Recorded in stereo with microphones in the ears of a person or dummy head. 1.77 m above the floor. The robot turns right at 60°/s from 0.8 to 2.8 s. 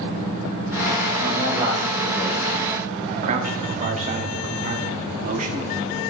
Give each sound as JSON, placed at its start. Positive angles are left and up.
{"t": 1.2, "sound": "a man speaking", "azimuth_deg": -45, "distance_m": 2.0}
{"t": 3.1, "sound": "a man speaking", "side_deg": -45, "distance_m": 0.8}